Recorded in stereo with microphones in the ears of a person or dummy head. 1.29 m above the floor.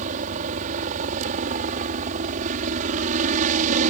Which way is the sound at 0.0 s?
45° right (ahead or behind).